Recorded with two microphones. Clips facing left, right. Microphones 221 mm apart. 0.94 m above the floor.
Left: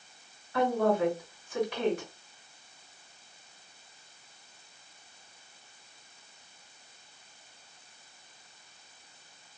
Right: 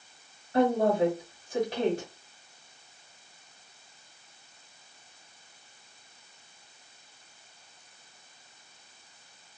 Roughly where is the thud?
I don't hear a thud.